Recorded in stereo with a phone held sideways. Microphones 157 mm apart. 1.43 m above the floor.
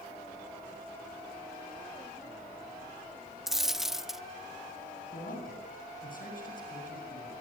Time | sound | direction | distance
3.5 | a dropped coin | centre (ahead or behind) | 0.7 m
5.1 | a man speaking | 60° left (ahead or behind) | 8.5 m